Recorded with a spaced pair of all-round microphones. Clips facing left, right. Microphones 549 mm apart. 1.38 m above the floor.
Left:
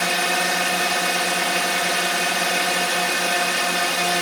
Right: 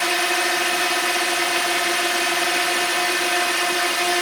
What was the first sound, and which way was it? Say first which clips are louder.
A drone: right 1 dB; 65° left (ahead or behind).